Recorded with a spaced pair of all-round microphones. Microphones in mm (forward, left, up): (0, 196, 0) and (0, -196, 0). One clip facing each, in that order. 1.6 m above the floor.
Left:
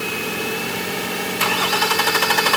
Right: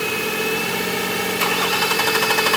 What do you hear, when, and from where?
Only background noise.